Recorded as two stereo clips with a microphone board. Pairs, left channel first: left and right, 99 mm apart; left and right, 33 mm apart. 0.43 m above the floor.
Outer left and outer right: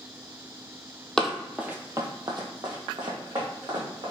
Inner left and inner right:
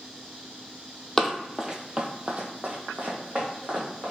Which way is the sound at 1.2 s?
5° left (ahead or behind).